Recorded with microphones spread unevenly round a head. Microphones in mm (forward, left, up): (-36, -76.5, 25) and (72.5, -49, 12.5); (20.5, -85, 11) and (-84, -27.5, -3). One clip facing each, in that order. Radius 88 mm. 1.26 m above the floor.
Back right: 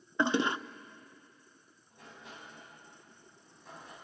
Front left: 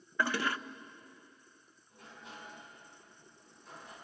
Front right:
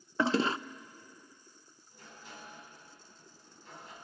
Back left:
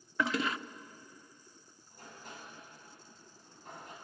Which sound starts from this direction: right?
A toilet flushing, at 0.2 s.